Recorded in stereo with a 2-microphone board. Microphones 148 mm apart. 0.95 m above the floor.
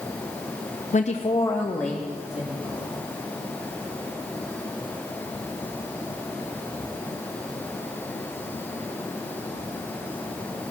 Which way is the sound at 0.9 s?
55° left (ahead or behind).